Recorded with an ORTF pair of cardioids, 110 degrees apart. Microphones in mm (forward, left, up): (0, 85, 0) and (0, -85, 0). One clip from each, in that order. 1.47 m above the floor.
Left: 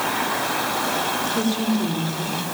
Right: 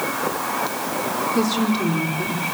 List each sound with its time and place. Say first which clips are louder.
1.4 s a woman speaking: right 2 dB; 30° right, 5.5 m